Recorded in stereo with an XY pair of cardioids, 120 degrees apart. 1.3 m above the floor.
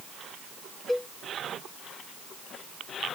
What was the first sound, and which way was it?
A cowbell, 10° left.